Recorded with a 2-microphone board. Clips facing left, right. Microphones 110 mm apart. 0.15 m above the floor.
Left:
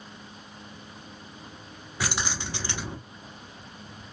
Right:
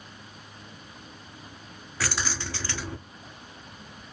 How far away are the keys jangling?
About 0.7 m.